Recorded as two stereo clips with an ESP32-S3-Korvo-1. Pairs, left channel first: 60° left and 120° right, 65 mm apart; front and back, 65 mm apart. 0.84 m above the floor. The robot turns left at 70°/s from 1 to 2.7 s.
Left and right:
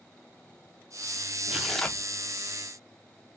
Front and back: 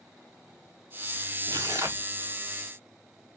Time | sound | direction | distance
1.5 | tearing paper | 165° left | 1.0 m